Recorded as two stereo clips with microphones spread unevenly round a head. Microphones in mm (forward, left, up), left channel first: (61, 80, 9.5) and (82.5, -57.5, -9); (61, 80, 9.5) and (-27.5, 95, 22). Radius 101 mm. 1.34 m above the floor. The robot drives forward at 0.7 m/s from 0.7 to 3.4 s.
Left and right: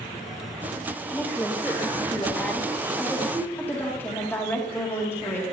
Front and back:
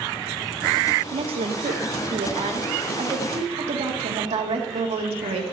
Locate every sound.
1.1 s a woman speaking: 175° left, 0.6 m; by 5.4 s straight behind, 2 m